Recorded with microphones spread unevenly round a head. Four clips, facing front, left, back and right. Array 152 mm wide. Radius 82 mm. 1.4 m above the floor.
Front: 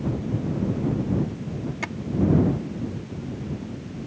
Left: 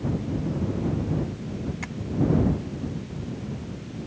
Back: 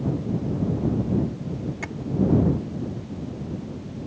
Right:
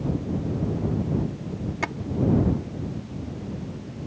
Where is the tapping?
90° right.